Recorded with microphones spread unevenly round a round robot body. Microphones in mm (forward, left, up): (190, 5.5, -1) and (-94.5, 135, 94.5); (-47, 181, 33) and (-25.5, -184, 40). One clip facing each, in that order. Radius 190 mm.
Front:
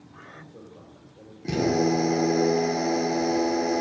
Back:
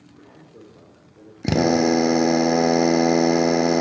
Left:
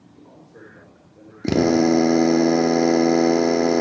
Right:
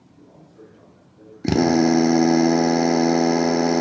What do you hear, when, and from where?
0.1 s a man speaking: 95° left, 2.5 m
1.4 s a drill: 170° right, 0.6 m